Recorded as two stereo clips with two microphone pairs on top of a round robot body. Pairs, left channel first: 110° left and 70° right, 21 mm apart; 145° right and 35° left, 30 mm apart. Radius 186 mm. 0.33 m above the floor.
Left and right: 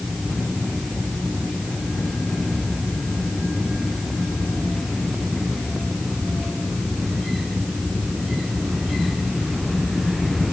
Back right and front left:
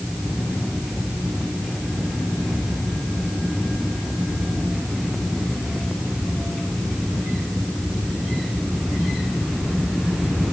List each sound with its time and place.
Only background noise.